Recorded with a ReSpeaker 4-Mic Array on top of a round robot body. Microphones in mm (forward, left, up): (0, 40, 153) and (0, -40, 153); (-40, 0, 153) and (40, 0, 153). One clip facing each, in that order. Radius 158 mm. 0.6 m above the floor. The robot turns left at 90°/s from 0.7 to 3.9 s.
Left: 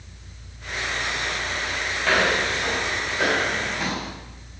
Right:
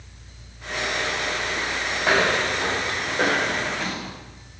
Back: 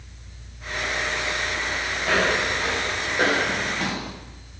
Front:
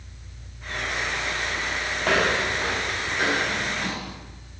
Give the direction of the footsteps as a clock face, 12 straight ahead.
12 o'clock.